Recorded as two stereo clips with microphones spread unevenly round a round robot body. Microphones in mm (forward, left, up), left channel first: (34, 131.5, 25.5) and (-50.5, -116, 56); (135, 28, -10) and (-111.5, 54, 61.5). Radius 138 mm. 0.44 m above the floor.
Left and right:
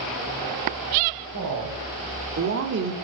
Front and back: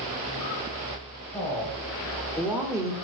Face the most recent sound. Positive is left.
turn(degrees=-95)